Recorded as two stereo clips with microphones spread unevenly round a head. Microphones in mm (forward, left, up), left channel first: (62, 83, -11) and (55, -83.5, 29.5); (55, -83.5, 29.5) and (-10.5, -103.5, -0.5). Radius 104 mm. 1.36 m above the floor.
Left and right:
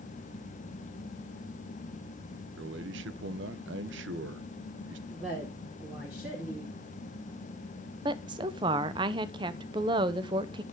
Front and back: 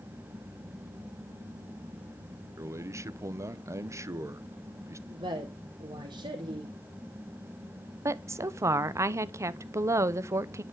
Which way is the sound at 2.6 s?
130° right.